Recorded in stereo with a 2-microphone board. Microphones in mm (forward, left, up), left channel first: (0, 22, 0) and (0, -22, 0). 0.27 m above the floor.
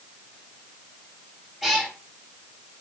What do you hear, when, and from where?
1.6 s a cat meowing: centre (ahead or behind), 2.0 m